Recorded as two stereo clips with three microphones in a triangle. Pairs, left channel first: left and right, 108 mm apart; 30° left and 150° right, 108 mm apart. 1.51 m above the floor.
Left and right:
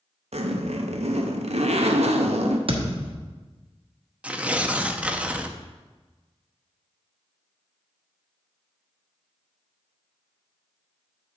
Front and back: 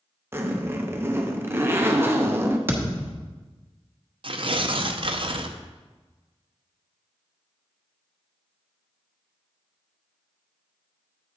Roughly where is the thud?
Right.